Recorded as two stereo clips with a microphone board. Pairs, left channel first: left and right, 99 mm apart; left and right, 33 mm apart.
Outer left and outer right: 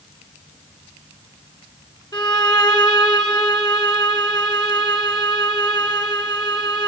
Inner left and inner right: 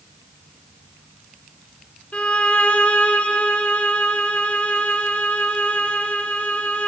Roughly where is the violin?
Left.